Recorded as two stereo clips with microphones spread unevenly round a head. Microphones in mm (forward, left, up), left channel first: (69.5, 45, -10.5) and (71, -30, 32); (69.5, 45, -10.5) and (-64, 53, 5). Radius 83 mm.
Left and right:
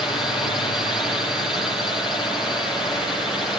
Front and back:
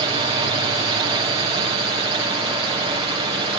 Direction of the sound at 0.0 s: 150° left.